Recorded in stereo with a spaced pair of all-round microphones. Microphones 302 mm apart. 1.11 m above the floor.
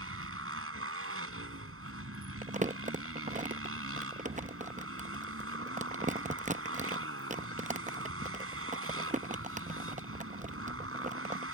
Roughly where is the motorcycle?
Right.